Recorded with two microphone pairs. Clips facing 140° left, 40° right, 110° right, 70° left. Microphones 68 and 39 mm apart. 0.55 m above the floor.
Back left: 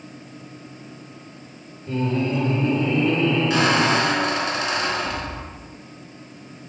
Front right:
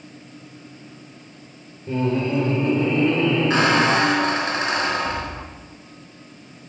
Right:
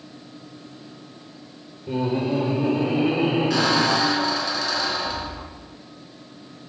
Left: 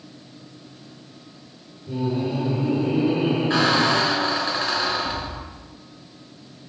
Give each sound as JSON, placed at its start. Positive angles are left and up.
{"t": 1.9, "sound": "laughter", "azimuth_deg": -95, "distance_m": 1.4}
{"t": 3.5, "sound": "a squeak", "azimuth_deg": 15, "distance_m": 1.4}